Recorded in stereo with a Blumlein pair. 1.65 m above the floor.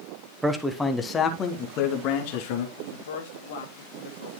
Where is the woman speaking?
55° left, 2 m.